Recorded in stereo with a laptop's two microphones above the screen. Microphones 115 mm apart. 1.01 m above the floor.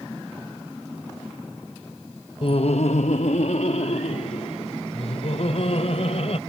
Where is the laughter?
50° left (ahead or behind); by 6.4 s 65° left (ahead or behind).